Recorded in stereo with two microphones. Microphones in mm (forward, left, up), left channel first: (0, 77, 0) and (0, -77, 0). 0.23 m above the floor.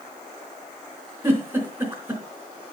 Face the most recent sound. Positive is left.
turn(degrees=-15)  # may be behind; listen again after turning